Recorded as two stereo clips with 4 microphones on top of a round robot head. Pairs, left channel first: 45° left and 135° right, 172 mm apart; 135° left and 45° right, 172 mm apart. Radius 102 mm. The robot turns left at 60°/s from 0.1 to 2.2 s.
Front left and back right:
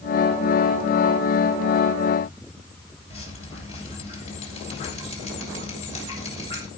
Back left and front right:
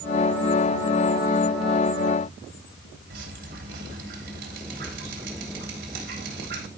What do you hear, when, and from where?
3.1 s dripping: 10° right, 4 m